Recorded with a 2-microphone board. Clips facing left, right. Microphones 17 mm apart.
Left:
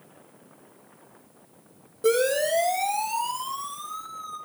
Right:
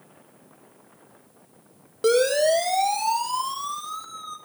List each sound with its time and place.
2.0 s a siren: 40° right (ahead or behind), 6 m; by 4.4 s 50° right (ahead or behind), 6.5 m